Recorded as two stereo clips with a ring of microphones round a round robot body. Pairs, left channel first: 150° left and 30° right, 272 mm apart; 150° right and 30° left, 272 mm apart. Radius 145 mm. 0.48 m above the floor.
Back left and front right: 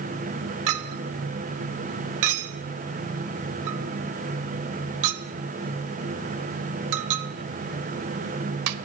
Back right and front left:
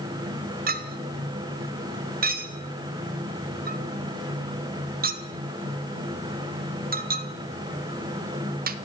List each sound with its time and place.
0.7 s a clink: 25° right, 1.3 m